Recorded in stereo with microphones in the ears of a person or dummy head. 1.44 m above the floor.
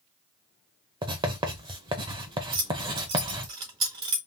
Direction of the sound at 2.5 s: 25° right (ahead or behind).